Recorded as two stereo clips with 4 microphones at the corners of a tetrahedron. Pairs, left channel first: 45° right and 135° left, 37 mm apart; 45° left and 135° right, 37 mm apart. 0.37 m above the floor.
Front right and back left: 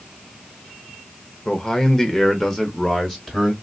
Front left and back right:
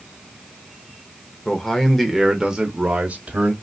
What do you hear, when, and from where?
1.4 s a man speaking: 10° left, 0.8 m; by 3.5 s 125° right, 1.1 m